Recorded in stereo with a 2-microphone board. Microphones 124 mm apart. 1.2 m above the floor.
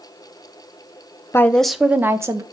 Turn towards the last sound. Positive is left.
turn(degrees=-25)  # may be behind; listen again after turning